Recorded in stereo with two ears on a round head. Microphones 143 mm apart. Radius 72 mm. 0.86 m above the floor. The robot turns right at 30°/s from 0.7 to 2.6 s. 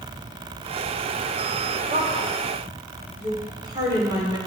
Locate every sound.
1.9 s a woman speaking: 50° right (ahead or behind), 3 m; by 4.4 s 30° right (ahead or behind), 3 m